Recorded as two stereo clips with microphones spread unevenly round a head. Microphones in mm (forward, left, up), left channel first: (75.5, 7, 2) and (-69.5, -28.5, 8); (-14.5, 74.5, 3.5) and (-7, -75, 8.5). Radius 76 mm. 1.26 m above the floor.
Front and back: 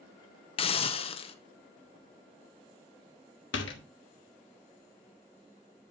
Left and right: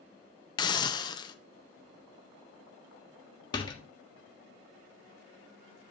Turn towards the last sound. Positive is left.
turn(degrees=30)